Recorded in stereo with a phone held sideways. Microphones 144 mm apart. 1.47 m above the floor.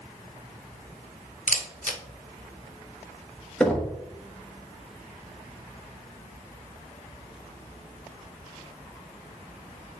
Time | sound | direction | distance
1.5 | a camera shutter | 70° left (ahead or behind) | 0.9 m
3.6 | knocking | 5° left (ahead or behind) | 1.1 m